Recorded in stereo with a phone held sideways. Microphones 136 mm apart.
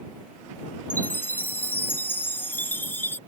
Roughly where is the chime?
Centre.